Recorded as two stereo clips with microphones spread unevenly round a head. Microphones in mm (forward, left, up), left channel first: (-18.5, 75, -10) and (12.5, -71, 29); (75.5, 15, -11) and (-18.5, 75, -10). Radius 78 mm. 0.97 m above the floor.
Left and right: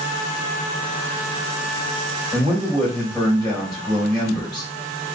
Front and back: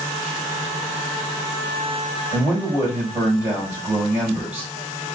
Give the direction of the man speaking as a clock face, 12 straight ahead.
6 o'clock.